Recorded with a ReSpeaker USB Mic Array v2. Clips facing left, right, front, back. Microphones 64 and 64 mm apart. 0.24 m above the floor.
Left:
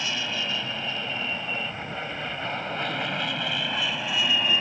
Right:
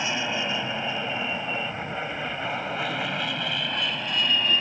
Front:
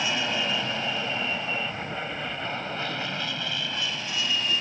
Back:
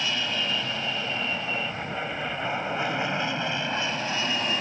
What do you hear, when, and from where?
0.0 s an aircraft: 55° right; by 4.6 s 165° left